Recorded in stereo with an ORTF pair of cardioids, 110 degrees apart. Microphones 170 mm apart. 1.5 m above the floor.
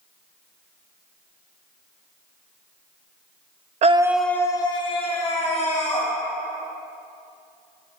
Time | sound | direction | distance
3.8 | a scream | 45° right | 0.6 m